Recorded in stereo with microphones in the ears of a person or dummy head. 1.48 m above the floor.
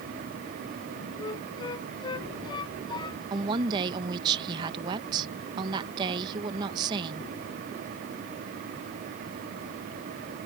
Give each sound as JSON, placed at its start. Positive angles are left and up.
{"t": 1.2, "sound": "a flute", "side_deg": 25}
{"t": 3.3, "sound": "a woman speaking", "side_deg": -30}